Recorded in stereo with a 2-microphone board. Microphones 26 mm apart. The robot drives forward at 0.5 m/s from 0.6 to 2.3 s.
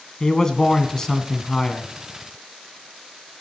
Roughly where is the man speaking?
Centre.